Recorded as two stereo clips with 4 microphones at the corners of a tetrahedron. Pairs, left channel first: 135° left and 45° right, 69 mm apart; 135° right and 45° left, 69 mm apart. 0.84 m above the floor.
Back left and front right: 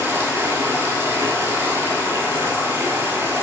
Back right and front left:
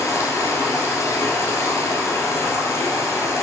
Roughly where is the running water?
Right.